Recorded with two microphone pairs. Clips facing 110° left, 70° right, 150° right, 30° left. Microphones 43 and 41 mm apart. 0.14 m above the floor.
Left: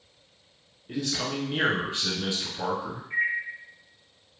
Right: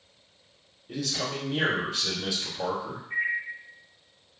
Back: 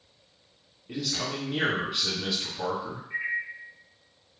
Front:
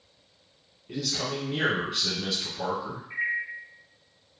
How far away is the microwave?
About 1.2 m.